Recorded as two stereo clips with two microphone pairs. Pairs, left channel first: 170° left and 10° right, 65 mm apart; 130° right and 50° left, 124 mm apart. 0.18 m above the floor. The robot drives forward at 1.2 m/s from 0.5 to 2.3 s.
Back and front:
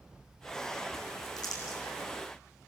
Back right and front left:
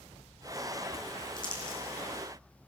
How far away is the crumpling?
About 6.5 m.